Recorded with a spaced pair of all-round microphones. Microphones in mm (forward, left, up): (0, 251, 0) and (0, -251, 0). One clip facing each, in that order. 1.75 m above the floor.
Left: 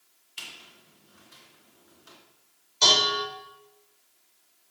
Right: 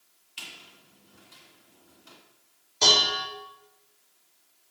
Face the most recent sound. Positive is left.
turn(degrees=-65)  # may be behind; listen again after turning